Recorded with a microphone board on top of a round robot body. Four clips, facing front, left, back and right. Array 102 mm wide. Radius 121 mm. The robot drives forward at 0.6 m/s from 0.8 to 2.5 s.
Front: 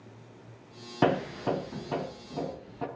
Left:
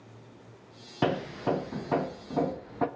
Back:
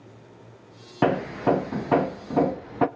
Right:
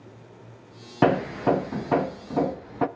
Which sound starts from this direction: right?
Hammering, at 1.0 s.